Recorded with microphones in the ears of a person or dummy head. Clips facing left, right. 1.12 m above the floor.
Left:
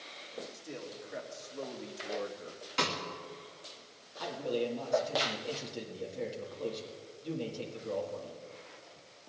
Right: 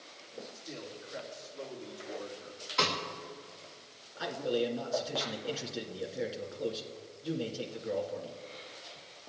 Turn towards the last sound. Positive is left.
turn(degrees=-5)  # may be behind; listen again after turning